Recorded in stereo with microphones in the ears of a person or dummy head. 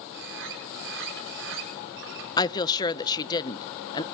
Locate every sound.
0.1 s a bird: 60° right (ahead or behind), 6.5 m
2.4 s a woman speaking: 20° left (ahead or behind), 0.8 m